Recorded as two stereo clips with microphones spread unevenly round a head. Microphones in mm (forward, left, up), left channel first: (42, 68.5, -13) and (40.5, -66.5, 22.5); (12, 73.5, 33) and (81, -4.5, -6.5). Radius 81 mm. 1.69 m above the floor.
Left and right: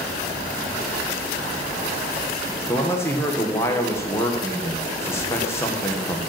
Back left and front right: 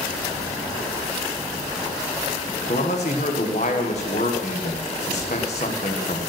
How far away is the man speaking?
About 1.2 m.